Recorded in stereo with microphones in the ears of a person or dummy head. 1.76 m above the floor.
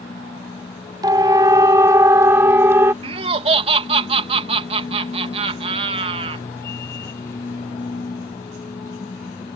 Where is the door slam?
I don't hear a door slam.